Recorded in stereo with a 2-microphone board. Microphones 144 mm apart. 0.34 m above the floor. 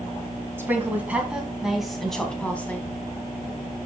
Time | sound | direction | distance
0.6 | a woman speaking | 15° right (ahead or behind) | 3 m